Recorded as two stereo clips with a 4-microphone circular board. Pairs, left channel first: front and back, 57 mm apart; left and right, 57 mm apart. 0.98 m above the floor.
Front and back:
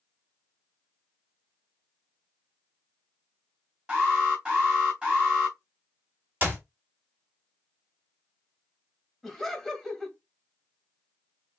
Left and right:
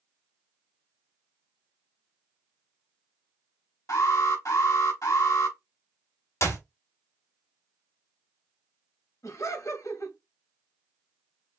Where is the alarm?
105° left, 4 m.